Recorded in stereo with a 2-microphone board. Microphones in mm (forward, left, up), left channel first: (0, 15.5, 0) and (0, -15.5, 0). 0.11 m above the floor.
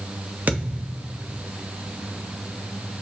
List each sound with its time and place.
0.5 s a thud: 70° right (ahead or behind), 2 m